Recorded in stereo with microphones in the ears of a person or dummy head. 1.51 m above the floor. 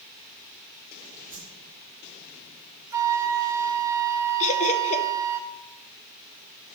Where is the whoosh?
15° right (ahead or behind), 3 m.